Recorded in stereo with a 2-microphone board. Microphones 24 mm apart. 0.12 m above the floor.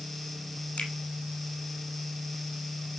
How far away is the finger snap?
About 2.5 m.